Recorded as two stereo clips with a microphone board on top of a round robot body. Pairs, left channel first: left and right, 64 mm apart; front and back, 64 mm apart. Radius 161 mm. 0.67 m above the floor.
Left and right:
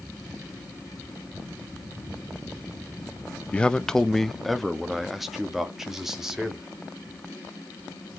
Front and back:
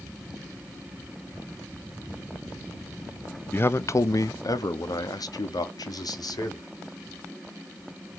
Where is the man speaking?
30° left, 0.6 m; by 6.7 s 5° right, 1.9 m.